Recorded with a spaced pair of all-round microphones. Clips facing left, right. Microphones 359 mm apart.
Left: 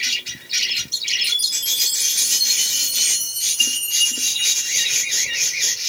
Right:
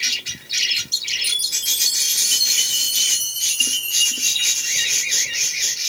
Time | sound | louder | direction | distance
1.2 | a chime | right 1 dB | 15° left (ahead or behind) | 1.3 m